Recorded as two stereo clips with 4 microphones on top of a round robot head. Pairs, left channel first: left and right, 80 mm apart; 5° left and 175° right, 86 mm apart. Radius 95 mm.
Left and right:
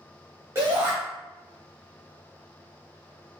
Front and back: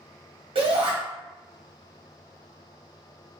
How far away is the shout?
About 1.1 m.